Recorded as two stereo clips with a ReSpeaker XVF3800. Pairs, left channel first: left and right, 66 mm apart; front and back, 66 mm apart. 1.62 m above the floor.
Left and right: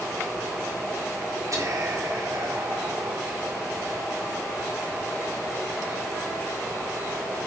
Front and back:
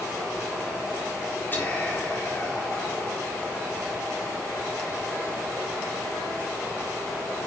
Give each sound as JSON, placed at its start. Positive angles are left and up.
{"t": 1.5, "sound": "whispering", "azimuth_deg": -60, "distance_m": 3.5}